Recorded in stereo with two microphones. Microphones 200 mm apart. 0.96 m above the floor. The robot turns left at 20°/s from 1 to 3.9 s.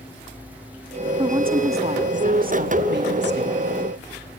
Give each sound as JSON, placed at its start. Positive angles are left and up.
{"t": 1.2, "sound": "a woman speaking", "azimuth_deg": -20, "distance_m": 1.6}